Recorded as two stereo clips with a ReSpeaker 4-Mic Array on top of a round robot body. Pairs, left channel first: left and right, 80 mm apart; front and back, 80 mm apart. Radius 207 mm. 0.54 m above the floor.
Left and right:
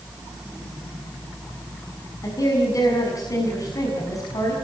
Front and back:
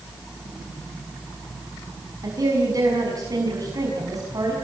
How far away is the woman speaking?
About 6 m.